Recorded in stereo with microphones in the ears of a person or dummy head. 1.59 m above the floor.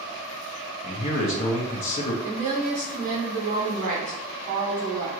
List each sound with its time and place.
0.8 s a man speaking: 40° left (ahead or behind), 0.7 m
2.2 s a woman speaking: 40° right (ahead or behind), 1.4 m